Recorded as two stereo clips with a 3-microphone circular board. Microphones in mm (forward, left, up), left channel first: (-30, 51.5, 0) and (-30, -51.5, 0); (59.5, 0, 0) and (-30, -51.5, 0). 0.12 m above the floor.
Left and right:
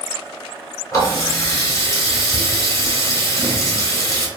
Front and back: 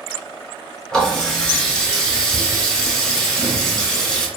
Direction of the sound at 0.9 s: 110° left.